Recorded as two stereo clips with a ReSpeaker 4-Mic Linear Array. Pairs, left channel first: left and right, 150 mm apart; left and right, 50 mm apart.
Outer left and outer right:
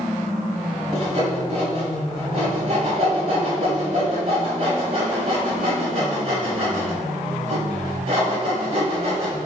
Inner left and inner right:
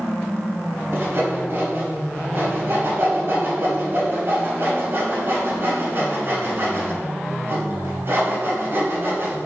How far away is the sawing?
About 5 m.